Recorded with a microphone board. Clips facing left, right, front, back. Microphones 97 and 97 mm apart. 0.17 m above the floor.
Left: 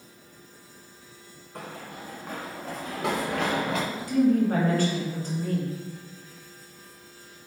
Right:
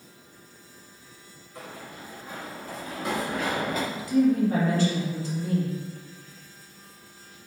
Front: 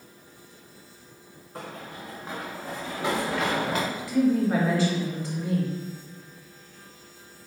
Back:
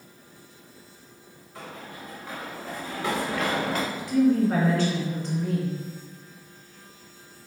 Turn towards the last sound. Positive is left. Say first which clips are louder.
# even, back 2 dB
turn(degrees=85)